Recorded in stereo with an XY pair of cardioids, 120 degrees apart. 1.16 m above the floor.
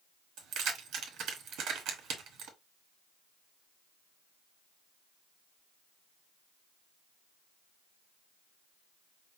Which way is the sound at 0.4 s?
70° right.